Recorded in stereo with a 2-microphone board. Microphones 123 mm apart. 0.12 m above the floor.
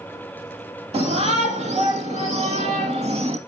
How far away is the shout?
About 3 m.